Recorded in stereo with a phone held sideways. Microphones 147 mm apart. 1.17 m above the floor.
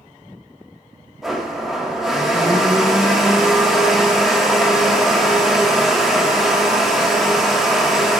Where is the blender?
Centre (ahead or behind), 0.9 m.